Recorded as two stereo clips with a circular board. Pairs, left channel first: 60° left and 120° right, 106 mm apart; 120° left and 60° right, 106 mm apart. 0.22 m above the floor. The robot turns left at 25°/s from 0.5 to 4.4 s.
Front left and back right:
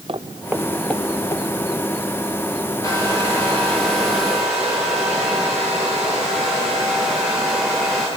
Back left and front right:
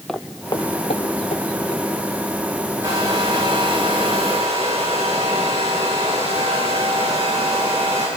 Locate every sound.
0.1 s footsteps: 150° right, 0.6 m; by 1.8 s 105° left, 3 m
2.8 s a hair dryer: 5° left, 7.5 m; by 8.1 s 35° right, 7.5 m